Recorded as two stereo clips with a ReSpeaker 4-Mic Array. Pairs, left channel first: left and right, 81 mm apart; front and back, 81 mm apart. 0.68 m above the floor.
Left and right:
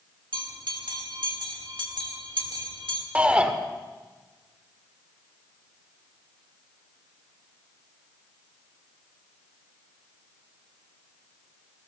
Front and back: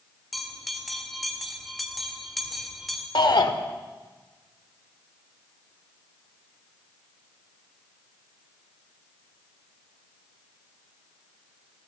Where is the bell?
90° right, 1.8 m.